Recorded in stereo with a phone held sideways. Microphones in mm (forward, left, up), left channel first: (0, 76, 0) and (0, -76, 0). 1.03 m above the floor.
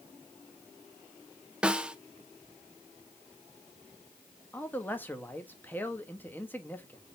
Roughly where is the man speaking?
Centre.